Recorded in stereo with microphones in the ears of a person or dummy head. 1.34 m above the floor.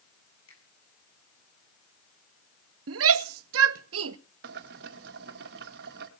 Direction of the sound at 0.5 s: 85° left.